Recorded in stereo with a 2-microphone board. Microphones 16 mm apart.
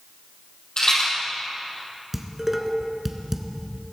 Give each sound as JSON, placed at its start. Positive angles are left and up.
{"t": 0.8, "sound": "a rattle", "side_deg": 50, "distance_m": 4.5}
{"t": 2.1, "sound": "dishes clattering", "side_deg": -10, "distance_m": 1.2}